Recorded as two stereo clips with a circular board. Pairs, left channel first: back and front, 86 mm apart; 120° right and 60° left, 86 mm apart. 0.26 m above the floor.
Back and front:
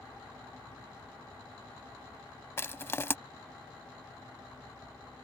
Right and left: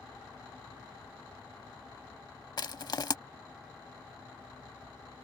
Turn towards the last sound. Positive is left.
turn(degrees=-125)